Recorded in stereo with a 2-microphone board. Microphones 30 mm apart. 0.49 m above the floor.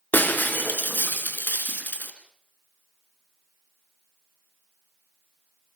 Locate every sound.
0.1 s breaking glass: 85° left, 3 m